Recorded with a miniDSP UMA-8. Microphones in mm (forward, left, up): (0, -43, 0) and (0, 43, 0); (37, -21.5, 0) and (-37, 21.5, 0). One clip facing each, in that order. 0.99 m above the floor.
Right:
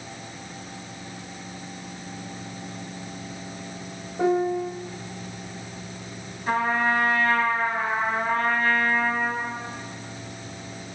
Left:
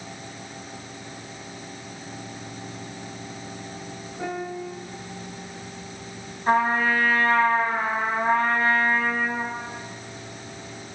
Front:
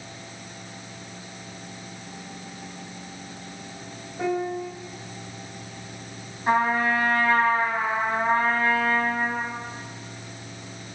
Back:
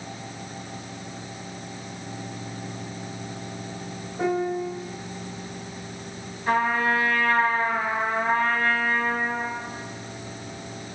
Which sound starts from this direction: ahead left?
A trumpet, at 6.5 s.